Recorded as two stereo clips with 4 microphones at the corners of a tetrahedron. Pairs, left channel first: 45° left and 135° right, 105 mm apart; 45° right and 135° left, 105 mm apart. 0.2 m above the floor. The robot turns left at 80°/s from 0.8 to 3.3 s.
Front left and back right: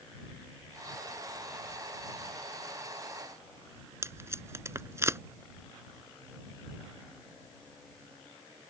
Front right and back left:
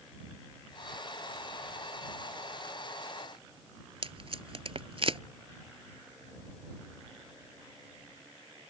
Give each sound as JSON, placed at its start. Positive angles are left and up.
{"t": 4.0, "sound": "tape being pulled", "azimuth_deg": 160}